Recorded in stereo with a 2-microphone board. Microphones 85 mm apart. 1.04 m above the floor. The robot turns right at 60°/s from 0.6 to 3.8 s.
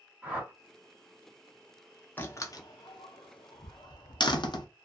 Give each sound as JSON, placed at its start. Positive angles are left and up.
{"t": 0.2, "sound": "a whoosh", "side_deg": -15, "distance_m": 1.3}
{"t": 2.2, "sound": "a door slam", "side_deg": 20, "distance_m": 0.5}